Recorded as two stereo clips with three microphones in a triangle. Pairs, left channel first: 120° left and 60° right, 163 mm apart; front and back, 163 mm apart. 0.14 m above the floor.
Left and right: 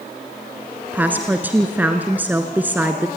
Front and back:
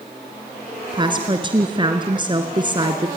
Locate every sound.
0.9 s a woman speaking: 135° right, 1.4 m